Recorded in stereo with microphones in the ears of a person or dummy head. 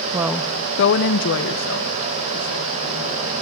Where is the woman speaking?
20° right (ahead or behind), 0.8 m; by 3.3 s 70° left (ahead or behind), 4 m.